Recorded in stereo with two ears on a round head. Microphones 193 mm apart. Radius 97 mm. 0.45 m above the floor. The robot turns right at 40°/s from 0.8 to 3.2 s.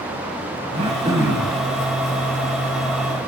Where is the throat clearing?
30° right, 2.5 m; by 1.6 s 5° left, 2.5 m.